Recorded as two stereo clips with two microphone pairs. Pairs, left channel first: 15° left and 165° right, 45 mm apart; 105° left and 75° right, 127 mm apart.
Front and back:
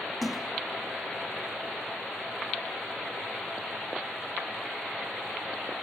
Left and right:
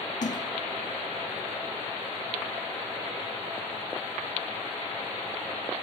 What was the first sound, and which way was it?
A splash, 100° left.